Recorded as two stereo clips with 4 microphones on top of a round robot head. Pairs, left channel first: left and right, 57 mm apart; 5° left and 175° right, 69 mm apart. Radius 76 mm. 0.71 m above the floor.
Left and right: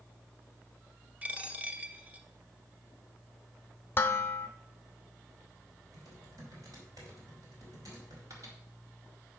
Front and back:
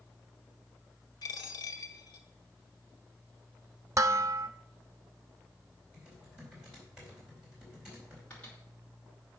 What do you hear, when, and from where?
1.2 s a dropped coin: 25° right, 0.9 m
4.0 s dishes clattering: 140° left, 0.5 m
5.9 s typing on a keyboard: 100° right, 4 m
8.3 s a microwave: 70° right, 2.5 m